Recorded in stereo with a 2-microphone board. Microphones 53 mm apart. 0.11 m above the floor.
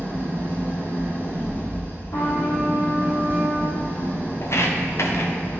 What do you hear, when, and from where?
0.0 s an engine running: 35° left (ahead or behind), 3 m
2.1 s a trumpet: 65° left (ahead or behind), 3 m
4.4 s footsteps: 55° left (ahead or behind), 1.9 m